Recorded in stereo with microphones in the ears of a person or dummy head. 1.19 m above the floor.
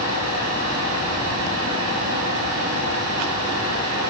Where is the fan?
80° right, 5.5 m.